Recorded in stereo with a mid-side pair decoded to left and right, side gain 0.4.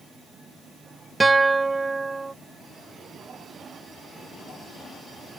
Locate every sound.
1.2 s a guitar: 25° right